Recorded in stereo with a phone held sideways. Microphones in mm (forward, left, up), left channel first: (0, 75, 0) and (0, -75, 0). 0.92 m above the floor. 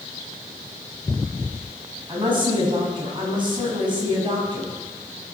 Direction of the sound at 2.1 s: 30° right (ahead or behind).